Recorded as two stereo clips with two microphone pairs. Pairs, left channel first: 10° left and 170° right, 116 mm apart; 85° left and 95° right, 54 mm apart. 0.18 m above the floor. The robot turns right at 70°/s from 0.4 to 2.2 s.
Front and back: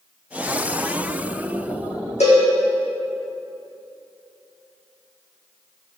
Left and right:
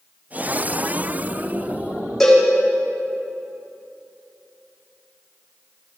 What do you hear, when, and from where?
2.2 s a cowbell: 5° right, 4.5 m